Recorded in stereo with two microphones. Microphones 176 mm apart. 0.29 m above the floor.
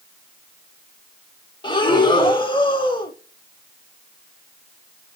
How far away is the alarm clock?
No alarm clock in this recording.